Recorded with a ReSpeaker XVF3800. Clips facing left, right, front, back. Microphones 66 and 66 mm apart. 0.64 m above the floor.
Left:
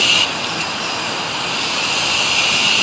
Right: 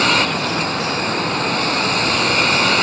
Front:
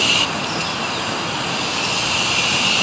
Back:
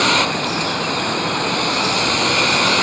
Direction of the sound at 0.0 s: 140° right.